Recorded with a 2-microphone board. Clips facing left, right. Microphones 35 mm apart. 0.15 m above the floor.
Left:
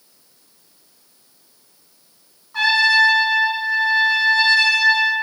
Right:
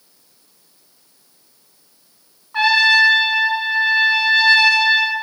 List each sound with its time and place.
2.5 s a trumpet: 30° right (ahead or behind), 1.8 m